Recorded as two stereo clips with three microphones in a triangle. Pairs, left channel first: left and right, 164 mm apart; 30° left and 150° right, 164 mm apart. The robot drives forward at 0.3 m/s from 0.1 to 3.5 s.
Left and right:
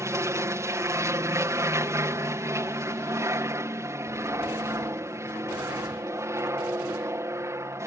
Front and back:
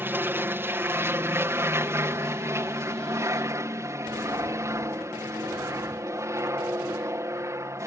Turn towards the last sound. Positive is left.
turn(degrees=-120)